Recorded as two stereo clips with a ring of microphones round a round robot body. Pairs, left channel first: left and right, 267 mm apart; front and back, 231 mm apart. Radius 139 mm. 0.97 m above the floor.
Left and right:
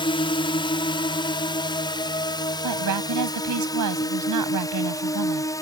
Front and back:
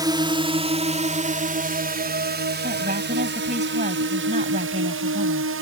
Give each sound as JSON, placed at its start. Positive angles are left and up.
{"t": 0.0, "sound": "a drone", "azimuth_deg": 130}
{"t": 2.6, "sound": "a woman speaking", "azimuth_deg": -115}